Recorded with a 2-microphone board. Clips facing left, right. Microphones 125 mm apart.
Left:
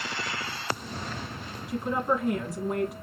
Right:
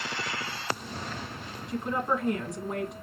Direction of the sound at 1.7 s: 5° left (ahead or behind).